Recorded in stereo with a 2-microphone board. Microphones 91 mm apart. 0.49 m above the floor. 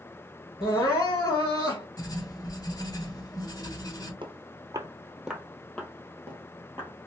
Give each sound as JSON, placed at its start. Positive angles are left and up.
{"t": 0.6, "sound": "crying", "side_deg": 40, "distance_m": 3.0}
{"t": 2.0, "sound": "writing", "side_deg": 45, "distance_m": 1.1}
{"t": 4.2, "sound": "footsteps", "side_deg": -65, "distance_m": 1.0}